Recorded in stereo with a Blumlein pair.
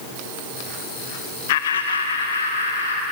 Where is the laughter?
55° left, 0.5 m; by 3.0 s 80° left, 2 m.